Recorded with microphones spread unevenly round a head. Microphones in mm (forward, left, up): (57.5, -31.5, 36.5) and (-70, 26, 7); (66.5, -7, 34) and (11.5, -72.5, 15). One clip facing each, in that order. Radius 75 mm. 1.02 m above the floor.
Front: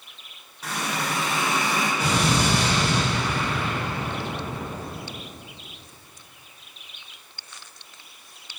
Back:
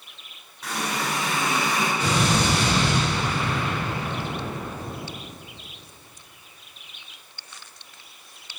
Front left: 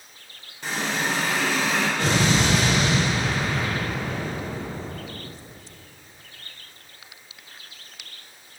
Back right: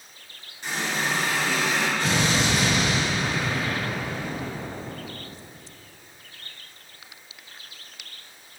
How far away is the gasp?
I don't hear a gasp.